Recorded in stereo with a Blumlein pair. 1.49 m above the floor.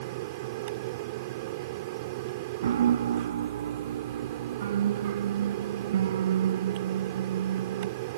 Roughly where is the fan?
Ahead right.